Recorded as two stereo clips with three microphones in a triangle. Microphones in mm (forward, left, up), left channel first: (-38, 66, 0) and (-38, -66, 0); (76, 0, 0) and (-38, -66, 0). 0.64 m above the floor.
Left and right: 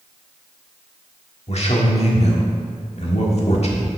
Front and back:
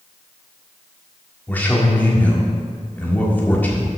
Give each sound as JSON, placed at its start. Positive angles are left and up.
{"t": 1.5, "sound": "a man speaking", "azimuth_deg": 105, "distance_m": 1.5}